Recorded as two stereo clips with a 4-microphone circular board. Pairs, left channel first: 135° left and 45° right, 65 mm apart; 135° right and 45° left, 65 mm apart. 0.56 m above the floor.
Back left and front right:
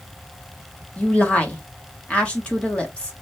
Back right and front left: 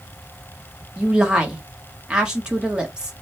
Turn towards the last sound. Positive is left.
turn(degrees=105)